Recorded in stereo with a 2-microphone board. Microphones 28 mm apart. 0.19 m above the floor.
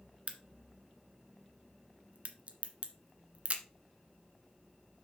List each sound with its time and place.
0.3 s a crack: 50° right (ahead or behind), 1.5 m